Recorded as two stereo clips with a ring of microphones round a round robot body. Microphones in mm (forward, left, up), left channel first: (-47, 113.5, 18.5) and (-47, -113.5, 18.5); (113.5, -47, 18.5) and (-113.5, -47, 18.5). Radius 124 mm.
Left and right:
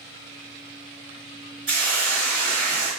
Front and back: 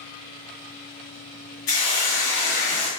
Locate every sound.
1.7 s a hiss: 20° right, 1.6 m